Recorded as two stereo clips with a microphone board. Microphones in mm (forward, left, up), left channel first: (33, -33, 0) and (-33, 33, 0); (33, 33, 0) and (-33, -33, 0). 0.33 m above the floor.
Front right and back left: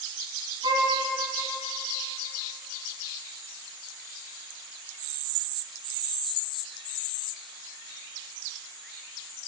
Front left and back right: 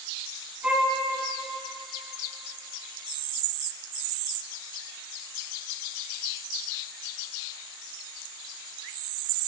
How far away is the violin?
About 3 m.